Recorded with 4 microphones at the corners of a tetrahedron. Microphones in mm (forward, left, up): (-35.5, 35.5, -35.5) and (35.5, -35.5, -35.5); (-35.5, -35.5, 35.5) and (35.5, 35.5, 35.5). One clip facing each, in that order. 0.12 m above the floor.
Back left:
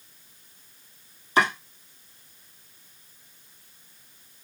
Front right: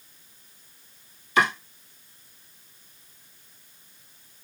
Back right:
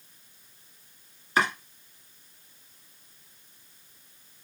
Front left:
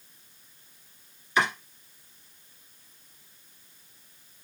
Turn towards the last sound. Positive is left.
turn(degrees=-175)